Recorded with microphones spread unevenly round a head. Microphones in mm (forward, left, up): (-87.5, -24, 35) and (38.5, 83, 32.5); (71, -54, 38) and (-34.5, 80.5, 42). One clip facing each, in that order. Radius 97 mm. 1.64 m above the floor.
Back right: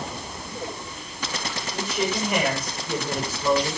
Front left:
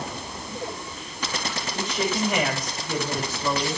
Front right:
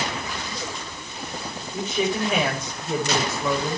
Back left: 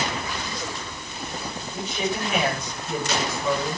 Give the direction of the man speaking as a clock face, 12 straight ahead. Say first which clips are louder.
Even, front right 4 dB; 2 o'clock.